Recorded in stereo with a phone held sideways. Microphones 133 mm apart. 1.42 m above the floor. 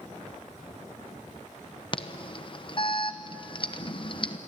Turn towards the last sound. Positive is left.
turn(degrees=40)  # may be behind; listen again after turning